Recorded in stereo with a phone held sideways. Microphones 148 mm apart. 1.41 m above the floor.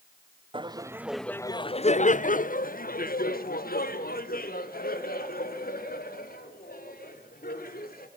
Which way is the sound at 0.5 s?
35° right (ahead or behind).